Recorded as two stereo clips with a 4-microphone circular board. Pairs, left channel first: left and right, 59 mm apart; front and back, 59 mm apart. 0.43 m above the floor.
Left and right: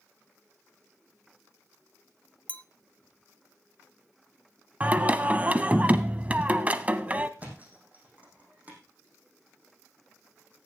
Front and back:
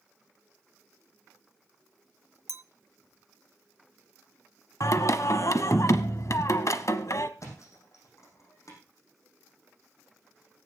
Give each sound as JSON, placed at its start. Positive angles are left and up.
{"t": 2.5, "sound": "a clink", "azimuth_deg": 150, "distance_m": 0.5}
{"t": 4.8, "sound": "singing", "azimuth_deg": -25, "distance_m": 0.8}
{"t": 7.4, "sound": "a thud", "azimuth_deg": -25, "distance_m": 5.0}